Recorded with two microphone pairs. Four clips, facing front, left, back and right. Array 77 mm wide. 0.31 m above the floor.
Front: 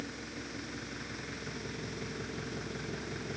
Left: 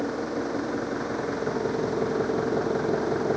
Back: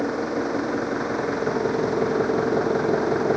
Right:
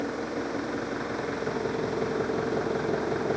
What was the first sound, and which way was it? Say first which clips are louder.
An engine running: left 2 dB, back 19 dB; 175° left.